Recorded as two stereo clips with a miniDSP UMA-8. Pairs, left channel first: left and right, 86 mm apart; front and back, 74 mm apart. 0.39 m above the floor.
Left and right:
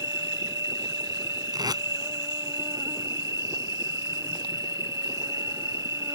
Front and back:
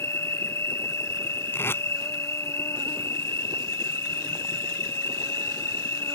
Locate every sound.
0.0 s an insect: 45° right
1.5 s tape being pulled: 60° right